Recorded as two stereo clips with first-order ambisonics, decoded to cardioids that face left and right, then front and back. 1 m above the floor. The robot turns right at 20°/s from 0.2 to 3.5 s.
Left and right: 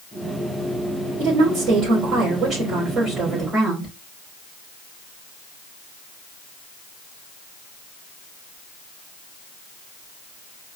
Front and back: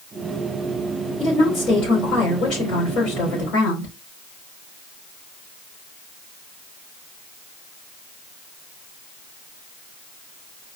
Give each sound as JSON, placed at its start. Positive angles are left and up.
{"t": 1.2, "sound": "a woman speaking", "azimuth_deg": -55, "distance_m": 3.0}